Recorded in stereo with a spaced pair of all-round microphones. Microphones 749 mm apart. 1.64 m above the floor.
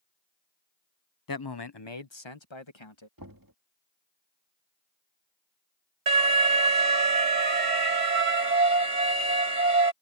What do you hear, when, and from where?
1.3 s a man speaking: 30° left (ahead or behind); by 3.1 s 40° left (ahead or behind)
3.2 s knocking: 25° right (ahead or behind)
6.1 s an alarm: 70° right (ahead or behind)